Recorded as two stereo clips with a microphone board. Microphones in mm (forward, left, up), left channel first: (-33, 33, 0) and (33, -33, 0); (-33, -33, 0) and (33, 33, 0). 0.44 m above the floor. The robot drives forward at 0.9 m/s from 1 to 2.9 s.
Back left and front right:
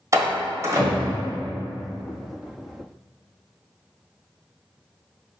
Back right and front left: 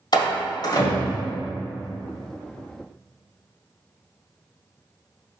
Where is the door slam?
100° right, 1.5 m; by 1.3 s 110° right, 1.5 m.